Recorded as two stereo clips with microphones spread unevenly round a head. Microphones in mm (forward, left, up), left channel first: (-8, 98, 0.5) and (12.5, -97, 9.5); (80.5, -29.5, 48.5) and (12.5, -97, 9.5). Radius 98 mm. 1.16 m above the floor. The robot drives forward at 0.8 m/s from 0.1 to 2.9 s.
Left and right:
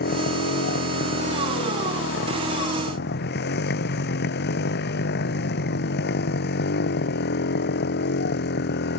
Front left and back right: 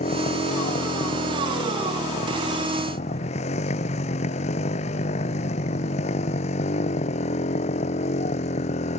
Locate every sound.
0.0 s a motorcycle: 55° left